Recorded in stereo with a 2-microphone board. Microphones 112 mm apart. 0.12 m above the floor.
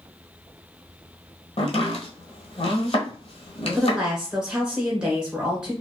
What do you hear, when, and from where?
1.6 s chopping: 65° left (ahead or behind), 1.0 m
3.8 s a woman speaking: 5° right (ahead or behind), 1.3 m